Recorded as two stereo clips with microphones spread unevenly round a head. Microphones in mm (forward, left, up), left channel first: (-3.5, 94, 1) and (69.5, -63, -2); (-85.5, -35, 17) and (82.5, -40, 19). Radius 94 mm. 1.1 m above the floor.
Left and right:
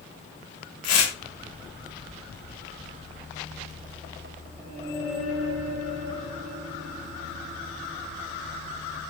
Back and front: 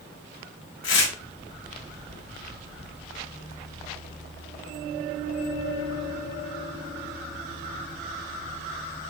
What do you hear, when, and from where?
0.8 s tearing paper: 160° left, 3.5 m